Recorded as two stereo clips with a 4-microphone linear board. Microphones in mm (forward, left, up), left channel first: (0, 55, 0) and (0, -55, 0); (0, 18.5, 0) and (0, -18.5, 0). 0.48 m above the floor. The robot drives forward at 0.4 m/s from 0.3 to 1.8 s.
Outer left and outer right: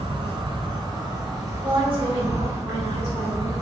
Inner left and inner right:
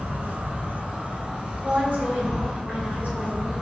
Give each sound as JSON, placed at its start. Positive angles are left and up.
{"t": 0.0, "sound": "an insect", "side_deg": -50, "distance_m": 0.7}
{"t": 1.6, "sound": "a woman speaking", "side_deg": -55, "distance_m": 1.6}